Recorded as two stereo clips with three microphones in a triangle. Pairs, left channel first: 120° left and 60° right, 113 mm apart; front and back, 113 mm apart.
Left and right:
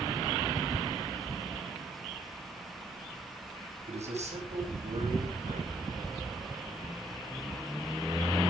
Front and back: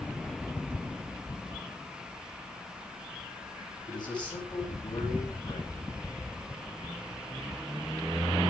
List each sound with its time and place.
3.9 s a man speaking: 50° right, 9.5 m